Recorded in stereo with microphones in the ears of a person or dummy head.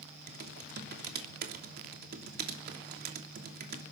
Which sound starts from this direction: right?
Typing on a keyboard, at 0.3 s.